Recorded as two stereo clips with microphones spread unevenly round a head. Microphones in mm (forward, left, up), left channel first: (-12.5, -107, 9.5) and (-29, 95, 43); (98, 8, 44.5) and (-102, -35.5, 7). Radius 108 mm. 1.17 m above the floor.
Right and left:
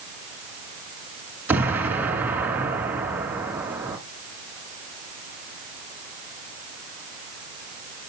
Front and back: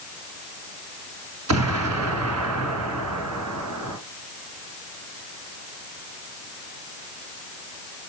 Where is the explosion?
170° left, 2.5 m.